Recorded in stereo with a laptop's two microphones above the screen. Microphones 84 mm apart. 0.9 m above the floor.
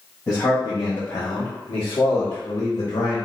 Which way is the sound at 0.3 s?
45° left (ahead or behind).